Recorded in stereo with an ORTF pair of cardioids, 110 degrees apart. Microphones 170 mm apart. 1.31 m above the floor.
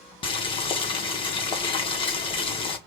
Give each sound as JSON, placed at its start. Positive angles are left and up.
{"t": 0.2, "sound": "boiling", "azimuth_deg": 30, "distance_m": 1.4}